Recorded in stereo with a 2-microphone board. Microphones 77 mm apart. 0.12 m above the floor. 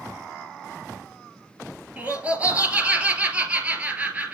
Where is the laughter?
20° right (ahead or behind), 2.5 m.